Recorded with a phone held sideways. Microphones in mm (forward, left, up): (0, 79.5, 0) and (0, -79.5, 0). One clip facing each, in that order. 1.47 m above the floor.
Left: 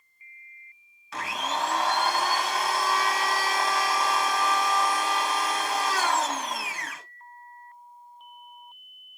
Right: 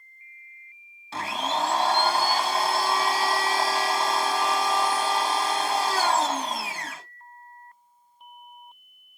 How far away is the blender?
About 1.1 m.